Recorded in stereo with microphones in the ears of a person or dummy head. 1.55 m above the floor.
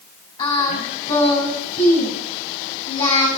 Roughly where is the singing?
Left.